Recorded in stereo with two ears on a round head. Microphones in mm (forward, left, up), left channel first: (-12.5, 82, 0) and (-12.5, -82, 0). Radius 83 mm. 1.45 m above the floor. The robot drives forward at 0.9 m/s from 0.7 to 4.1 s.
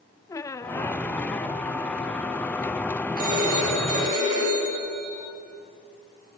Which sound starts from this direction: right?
A phone ringing, at 3.2 s.